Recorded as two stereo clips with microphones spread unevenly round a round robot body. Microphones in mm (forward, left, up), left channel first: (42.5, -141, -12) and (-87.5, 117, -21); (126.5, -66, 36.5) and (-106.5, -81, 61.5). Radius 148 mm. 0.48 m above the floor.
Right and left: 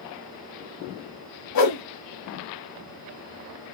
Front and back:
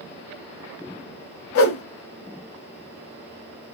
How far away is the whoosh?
About 0.7 m.